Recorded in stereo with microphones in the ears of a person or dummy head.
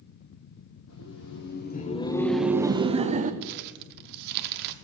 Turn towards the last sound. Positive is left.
turn(degrees=-55)  # may be behind; listen again after turning